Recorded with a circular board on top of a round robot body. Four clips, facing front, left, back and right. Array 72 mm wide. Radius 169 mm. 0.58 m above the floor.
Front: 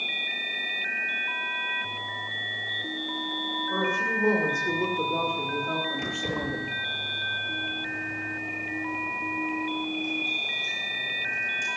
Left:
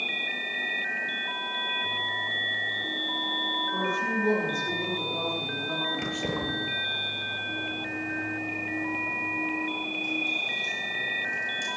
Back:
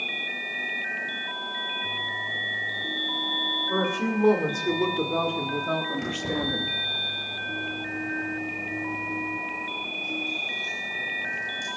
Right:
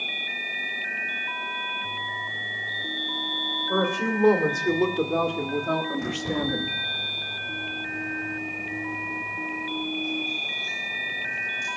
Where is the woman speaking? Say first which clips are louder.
Right 5 dB, back 1 dB; 120° right, 2.5 m; by 6.7 s 125° right, 1.0 m.